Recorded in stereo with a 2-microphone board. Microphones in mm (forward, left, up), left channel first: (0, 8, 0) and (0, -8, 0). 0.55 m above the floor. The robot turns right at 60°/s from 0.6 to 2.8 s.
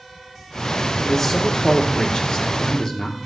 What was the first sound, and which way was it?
A man speaking, 30° left.